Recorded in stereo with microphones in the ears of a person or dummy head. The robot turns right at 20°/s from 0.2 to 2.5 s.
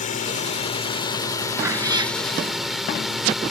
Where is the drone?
130° left; by 3.5 s 175° left.